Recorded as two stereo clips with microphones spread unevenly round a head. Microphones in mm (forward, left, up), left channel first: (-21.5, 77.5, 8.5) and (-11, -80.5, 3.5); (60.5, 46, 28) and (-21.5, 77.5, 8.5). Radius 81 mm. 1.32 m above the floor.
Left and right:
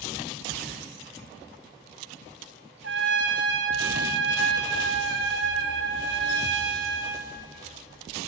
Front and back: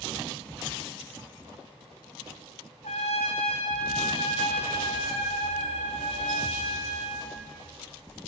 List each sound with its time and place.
2.8 s a trumpet: 65° right, 3.5 m